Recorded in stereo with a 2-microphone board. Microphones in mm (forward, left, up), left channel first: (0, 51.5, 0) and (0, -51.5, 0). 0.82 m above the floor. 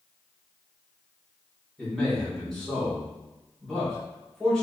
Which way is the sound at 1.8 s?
5° left (ahead or behind).